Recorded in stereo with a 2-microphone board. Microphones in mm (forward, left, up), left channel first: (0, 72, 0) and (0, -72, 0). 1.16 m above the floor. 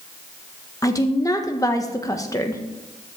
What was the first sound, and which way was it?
A woman speaking, 25° left (ahead or behind).